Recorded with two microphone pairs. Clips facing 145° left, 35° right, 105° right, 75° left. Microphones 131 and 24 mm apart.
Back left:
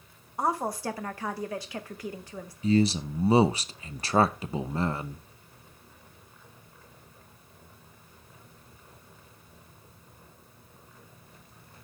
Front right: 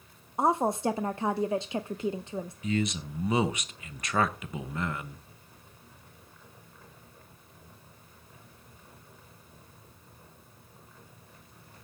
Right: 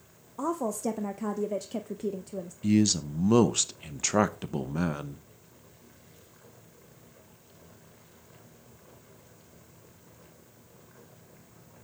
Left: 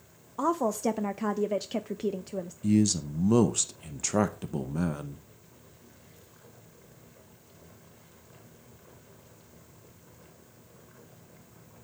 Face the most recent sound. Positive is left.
turn(degrees=-160)